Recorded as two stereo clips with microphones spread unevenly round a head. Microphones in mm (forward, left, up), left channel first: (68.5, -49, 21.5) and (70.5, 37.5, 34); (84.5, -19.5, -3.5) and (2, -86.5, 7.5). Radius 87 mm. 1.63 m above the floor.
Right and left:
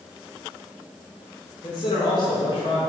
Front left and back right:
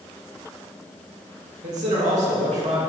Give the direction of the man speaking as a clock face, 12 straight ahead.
5 o'clock.